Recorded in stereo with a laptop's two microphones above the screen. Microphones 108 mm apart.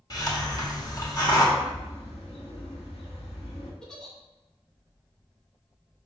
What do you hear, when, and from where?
0.1 s a hiss: 35° left (ahead or behind), 1.3 m
1.6 s a bird: 70° left (ahead or behind), 1.4 m
3.8 s a giggle: 5° left (ahead or behind), 0.7 m